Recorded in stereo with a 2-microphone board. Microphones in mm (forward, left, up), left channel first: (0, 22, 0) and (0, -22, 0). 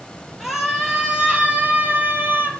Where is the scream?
10° right (ahead or behind), 4.5 m; by 2.5 s 50° right (ahead or behind), 4 m.